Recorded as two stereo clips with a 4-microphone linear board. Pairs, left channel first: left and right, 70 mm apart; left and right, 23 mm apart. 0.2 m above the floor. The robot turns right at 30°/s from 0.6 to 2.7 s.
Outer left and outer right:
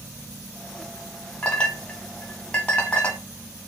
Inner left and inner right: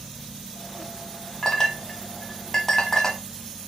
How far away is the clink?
About 0.9 m.